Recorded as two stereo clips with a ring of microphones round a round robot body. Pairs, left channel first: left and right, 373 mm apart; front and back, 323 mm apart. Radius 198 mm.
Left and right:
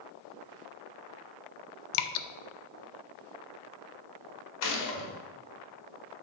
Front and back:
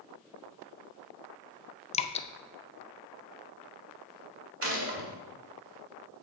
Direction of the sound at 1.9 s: 75° left.